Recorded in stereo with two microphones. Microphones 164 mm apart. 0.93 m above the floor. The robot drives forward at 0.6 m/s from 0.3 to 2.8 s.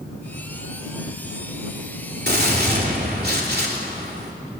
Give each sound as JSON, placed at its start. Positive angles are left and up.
{"t": 2.3, "sound": "a gunshot", "side_deg": -75, "distance_m": 3.0}